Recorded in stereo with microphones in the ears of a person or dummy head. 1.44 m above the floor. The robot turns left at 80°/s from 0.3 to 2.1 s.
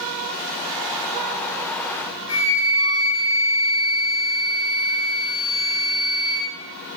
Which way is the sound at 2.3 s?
30° left (ahead or behind).